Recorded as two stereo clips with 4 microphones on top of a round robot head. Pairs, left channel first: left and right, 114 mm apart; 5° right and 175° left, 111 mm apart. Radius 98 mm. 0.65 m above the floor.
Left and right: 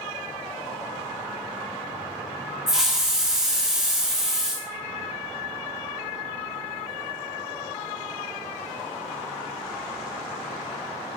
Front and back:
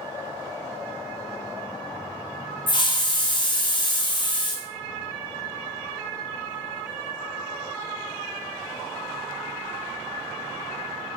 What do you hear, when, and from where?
2.7 s a hiss: 5° right, 0.5 m